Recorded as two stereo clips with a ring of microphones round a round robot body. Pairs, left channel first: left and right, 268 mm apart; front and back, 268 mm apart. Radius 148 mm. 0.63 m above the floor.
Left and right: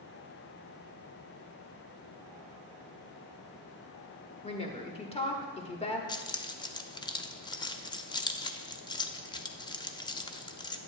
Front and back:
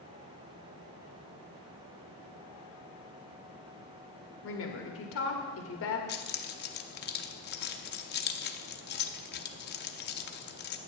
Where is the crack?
I don't hear a crack.